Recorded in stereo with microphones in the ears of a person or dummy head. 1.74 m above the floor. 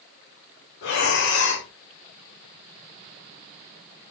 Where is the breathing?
60° left (ahead or behind), 1.4 m.